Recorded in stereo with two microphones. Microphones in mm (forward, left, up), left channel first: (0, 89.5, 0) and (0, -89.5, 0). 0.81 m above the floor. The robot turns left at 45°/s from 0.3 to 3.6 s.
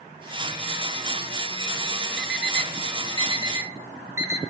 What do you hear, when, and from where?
2.2 s an alarm clock: 80° right, 0.9 m; by 4.4 s 15° right (ahead or behind), 0.9 m